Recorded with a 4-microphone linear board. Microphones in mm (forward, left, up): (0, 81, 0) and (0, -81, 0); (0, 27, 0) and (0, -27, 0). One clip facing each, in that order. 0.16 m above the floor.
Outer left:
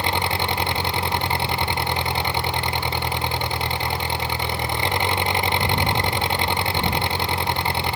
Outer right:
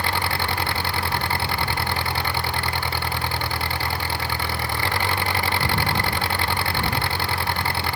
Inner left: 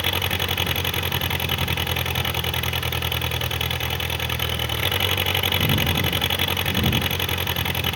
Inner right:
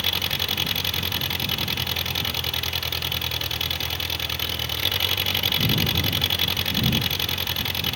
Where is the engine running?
20° left (ahead or behind).